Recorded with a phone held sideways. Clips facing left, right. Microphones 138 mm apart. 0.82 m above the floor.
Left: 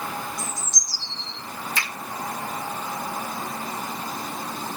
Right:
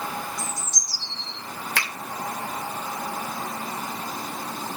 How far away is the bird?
About 2.5 m.